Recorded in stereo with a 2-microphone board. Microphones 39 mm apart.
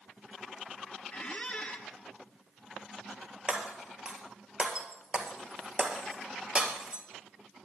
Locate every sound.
1.1 s a squeak: 25° left (ahead or behind), 1.3 m
3.5 s breaking glass: 20° right (ahead or behind), 1.6 m